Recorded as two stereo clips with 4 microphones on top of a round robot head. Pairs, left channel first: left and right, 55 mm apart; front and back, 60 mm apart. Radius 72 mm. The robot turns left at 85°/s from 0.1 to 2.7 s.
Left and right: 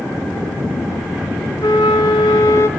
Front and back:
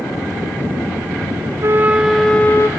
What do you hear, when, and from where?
1.6 s a flute: 140° left, 0.5 m; by 2.7 s 45° left, 0.5 m